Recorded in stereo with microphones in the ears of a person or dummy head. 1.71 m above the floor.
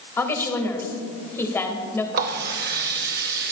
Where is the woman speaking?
15° left (ahead or behind), 2 m.